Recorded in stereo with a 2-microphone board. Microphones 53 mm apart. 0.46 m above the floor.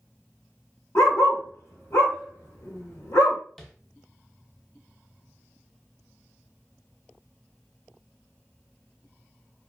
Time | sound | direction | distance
0.9 | a dog barking | 65° left (ahead or behind) | 1.1 m
3.6 | tapping | 5° left (ahead or behind) | 0.5 m